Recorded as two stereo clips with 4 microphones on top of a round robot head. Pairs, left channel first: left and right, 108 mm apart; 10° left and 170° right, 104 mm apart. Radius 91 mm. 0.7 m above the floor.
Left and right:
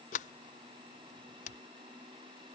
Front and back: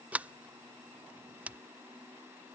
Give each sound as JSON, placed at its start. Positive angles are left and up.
{"t": 0.1, "sound": "a sliding door", "azimuth_deg": 110}